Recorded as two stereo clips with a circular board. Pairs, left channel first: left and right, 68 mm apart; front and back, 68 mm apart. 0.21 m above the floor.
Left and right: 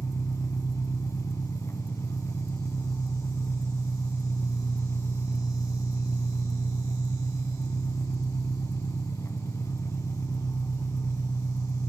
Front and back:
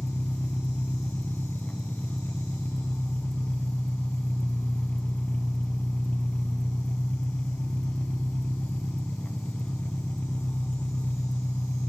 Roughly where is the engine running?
Ahead left.